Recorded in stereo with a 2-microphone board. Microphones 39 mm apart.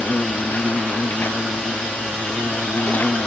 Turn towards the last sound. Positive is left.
turn(degrees=55)  # may be behind; listen again after turning